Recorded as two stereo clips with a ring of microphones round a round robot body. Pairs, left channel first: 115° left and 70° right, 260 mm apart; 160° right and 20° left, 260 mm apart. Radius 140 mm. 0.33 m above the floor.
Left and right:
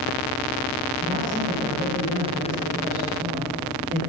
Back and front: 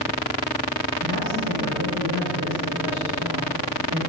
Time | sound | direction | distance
1.0 | a man speaking | 5° right | 7.5 m